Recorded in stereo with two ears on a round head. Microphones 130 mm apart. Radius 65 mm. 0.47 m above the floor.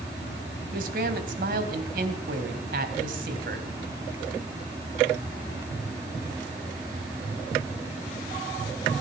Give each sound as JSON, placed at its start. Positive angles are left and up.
{"t": 0.7, "sound": "a man speaking", "side_deg": -65, "distance_m": 3.0}